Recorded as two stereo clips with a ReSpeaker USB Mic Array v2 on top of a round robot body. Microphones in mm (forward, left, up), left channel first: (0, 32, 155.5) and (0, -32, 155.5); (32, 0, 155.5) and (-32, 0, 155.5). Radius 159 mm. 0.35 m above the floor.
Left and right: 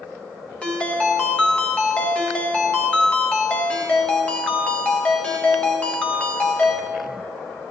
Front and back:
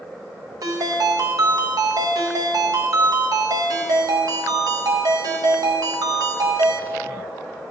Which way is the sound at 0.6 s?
165° left.